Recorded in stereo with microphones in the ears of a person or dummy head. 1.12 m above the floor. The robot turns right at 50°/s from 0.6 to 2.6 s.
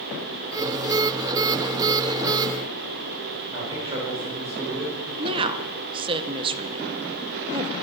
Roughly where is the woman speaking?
Right.